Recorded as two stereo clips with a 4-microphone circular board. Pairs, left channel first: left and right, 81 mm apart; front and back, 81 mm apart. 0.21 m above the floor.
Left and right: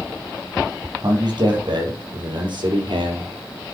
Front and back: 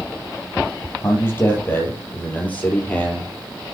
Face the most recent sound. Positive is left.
turn(degrees=-80)